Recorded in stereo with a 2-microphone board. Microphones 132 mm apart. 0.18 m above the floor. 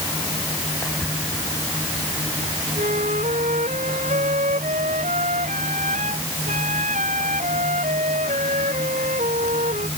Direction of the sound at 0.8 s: Centre (ahead or behind).